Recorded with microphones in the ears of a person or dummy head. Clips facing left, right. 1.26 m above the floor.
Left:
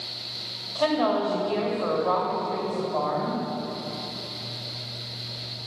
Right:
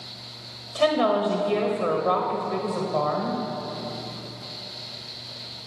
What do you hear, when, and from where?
0.8 s a woman speaking: 25° right (ahead or behind), 1.4 m